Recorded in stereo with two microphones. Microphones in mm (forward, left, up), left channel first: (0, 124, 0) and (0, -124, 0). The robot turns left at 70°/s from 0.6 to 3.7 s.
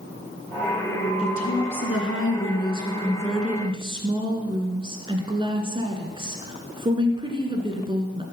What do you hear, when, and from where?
1.2 s a woman speaking: 155° left, 2 m; by 8.2 s 20° right, 2 m